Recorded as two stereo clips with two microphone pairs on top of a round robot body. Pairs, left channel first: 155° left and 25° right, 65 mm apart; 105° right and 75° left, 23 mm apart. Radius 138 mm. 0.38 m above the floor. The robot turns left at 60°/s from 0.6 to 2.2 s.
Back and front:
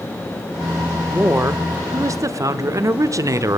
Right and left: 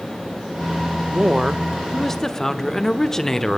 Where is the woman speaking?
35° left, 1.3 m; by 3.6 s 30° right, 1.3 m.